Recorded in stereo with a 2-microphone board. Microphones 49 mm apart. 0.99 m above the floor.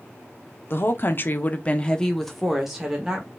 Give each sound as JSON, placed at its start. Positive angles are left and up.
{"t": 0.7, "sound": "a woman speaking", "side_deg": 50, "distance_m": 0.9}